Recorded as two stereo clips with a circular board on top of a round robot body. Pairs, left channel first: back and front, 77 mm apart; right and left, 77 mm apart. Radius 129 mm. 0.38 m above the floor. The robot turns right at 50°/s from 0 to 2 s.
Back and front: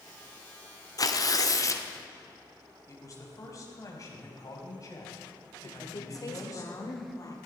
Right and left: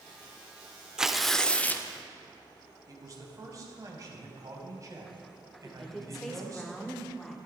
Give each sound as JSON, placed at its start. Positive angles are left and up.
{"t": 1.0, "sound": "tearing paper", "azimuth_deg": 170, "distance_m": 1.4}
{"t": 2.9, "sound": "a man speaking", "azimuth_deg": 135, "distance_m": 3.5}
{"t": 5.6, "sound": "a woman speaking", "azimuth_deg": -175, "distance_m": 1.8}